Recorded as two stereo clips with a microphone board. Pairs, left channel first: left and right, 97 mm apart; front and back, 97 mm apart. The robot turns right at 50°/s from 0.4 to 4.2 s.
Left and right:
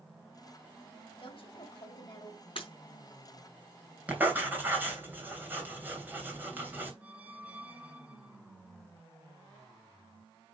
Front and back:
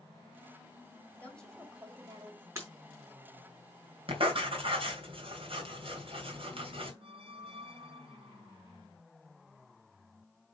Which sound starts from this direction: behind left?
Breaking glass, at 2.5 s.